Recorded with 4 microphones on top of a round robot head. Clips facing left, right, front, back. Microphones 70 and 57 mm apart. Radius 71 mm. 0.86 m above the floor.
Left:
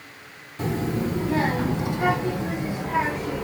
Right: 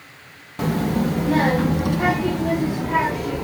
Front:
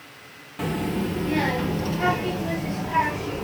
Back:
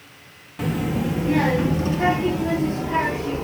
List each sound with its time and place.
0.6 s a child speaking: 90° right, 0.9 m; by 3.5 s 115° right, 2 m